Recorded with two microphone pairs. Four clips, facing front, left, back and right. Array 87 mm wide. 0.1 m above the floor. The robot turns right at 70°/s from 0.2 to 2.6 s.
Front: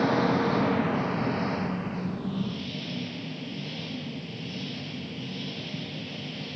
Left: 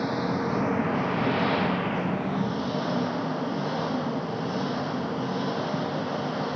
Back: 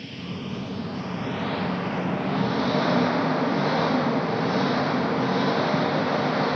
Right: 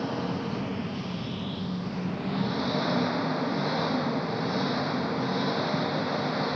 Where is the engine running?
10° left; by 6.6 s 175° left.